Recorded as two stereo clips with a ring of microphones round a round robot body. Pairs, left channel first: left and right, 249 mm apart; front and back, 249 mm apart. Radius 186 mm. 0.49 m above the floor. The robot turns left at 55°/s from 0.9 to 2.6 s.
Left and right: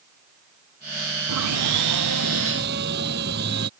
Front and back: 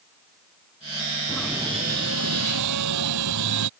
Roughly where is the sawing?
Right.